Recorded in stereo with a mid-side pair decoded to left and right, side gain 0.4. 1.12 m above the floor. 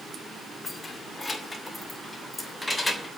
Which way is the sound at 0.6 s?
35° left.